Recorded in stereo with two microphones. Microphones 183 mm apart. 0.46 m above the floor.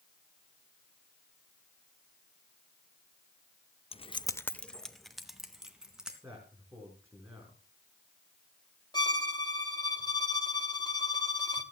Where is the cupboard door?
No cupboard door in this recording.